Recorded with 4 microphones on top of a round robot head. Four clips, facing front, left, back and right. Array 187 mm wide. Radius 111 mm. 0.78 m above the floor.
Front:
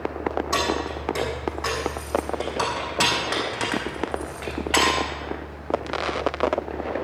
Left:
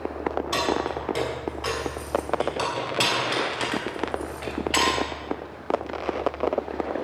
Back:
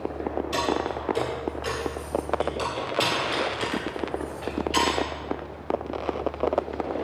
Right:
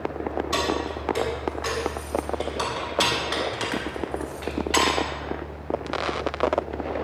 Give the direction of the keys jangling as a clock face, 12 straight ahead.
11 o'clock.